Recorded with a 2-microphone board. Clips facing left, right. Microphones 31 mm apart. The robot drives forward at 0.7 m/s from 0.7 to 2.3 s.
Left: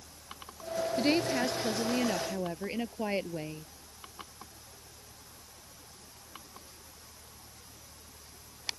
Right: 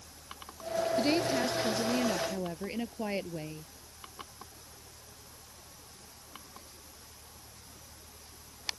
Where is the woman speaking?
10° left (ahead or behind).